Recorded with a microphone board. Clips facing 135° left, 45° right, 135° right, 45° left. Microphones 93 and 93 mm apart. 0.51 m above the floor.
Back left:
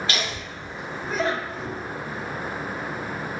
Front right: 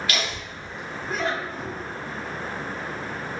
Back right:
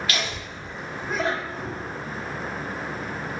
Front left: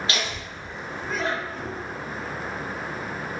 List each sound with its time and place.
0.1 s laughter: 90° left, 1.4 m; by 1.8 s 170° right, 1.6 m